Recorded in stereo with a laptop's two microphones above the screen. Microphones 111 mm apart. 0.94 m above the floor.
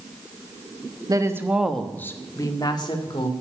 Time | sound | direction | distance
1.1 | a woman speaking | 35° right (ahead or behind) | 1.2 m